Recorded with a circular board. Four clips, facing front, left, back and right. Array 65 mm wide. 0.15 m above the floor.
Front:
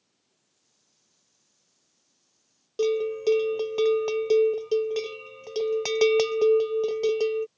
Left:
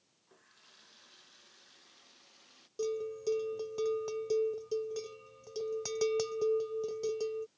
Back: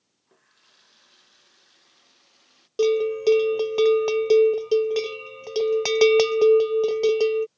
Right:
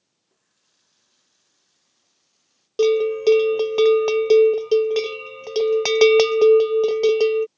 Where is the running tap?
150° left.